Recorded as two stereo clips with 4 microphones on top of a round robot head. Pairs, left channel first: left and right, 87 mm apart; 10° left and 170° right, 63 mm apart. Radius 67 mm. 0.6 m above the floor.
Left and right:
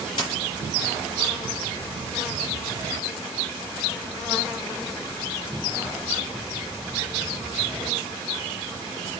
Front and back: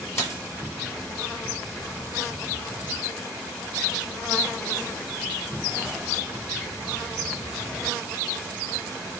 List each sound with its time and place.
0.2 s a dropped coin: 55° left, 5.5 m